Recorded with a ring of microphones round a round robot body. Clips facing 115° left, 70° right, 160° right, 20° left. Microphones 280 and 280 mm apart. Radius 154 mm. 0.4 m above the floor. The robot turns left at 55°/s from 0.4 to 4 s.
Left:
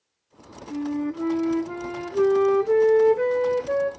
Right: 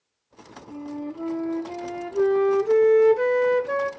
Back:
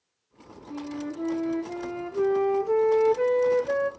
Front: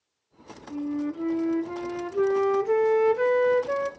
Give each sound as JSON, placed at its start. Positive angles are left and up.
{"t": 0.7, "sound": "a flute", "azimuth_deg": 125, "distance_m": 0.6}